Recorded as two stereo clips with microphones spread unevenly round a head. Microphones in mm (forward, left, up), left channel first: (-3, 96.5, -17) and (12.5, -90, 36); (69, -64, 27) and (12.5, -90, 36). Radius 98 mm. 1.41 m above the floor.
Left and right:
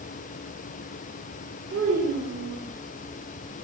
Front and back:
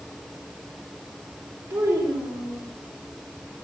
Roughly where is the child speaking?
Behind right.